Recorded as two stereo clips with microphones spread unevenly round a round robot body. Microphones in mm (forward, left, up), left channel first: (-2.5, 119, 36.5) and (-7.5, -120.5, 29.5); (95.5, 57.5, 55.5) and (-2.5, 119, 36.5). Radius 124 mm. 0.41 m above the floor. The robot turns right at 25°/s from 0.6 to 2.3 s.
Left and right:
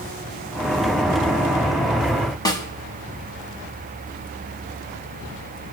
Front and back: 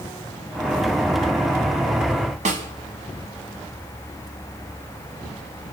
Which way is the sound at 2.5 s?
165° left.